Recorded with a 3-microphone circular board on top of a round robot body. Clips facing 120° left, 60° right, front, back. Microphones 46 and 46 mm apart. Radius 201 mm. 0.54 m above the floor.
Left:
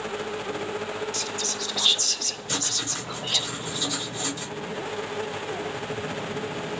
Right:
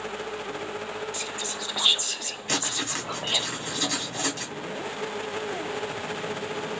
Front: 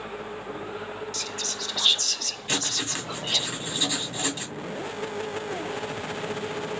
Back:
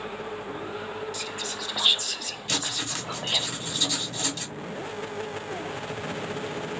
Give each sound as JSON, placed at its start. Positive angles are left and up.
{"t": 1.1, "sound": "whispering", "azimuth_deg": -110, "distance_m": 0.6}
{"t": 2.5, "sound": "writing", "azimuth_deg": -70, "distance_m": 2.0}